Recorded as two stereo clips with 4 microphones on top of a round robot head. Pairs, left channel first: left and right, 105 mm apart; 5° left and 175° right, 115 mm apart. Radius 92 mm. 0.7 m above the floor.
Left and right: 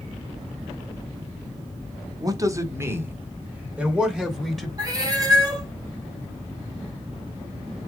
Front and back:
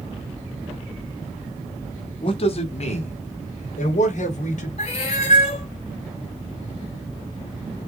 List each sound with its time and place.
2.2 s a man speaking: 40° right, 1.7 m; by 4.7 s straight ahead, 3 m
4.8 s a cat meowing: 35° right, 3 m